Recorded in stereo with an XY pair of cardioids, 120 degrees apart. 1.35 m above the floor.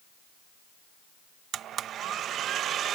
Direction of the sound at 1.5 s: 60° right.